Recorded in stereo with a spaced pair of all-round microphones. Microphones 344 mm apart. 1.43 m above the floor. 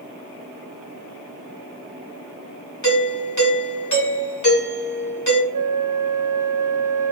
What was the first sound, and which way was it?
A doorbell, 55° left (ahead or behind).